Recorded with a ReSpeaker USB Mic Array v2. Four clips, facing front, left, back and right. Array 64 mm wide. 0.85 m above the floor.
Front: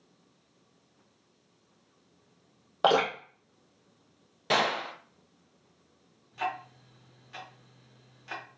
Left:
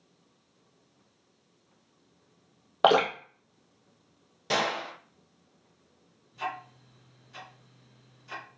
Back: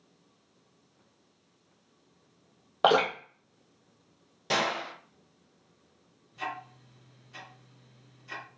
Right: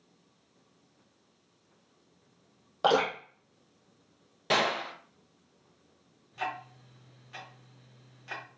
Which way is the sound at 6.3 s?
55° right.